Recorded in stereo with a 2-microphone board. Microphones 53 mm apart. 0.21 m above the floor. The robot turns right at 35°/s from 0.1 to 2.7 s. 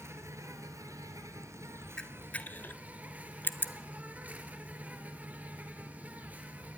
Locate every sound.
0.0 s an insect: 125° right, 2 m; by 6.8 s 30° right, 2 m
2.0 s a camera shutter: 10° left (ahead or behind), 1.0 m; by 3.7 s 35° left (ahead or behind), 1.0 m